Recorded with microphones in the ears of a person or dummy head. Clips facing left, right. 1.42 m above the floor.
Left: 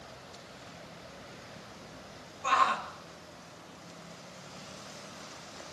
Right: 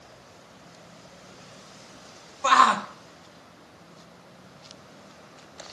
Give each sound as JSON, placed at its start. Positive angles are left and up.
{"t": 2.4, "sound": "a shout", "side_deg": -75, "distance_m": 1.0}